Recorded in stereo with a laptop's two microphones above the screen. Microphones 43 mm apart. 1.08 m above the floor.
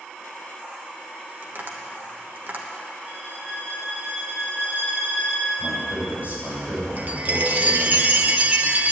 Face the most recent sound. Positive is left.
turn(degrees=-40)  # may be behind; listen again after turning